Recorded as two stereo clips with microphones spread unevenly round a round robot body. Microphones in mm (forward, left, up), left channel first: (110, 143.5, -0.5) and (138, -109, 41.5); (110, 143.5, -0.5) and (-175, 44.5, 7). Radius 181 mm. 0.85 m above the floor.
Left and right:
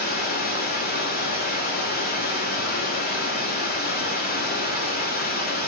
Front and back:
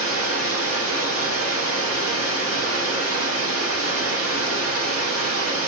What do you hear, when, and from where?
0.0 s running water: 155° left, 1.0 m